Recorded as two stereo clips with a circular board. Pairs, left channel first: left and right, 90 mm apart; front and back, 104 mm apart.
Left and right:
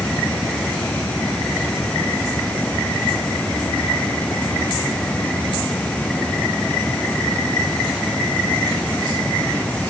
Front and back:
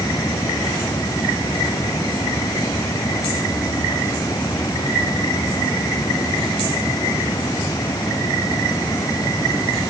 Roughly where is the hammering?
No hammering in this recording.